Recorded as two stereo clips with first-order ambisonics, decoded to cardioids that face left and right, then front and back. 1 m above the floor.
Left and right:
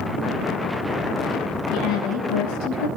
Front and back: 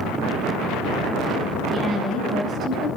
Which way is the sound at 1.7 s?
110° left.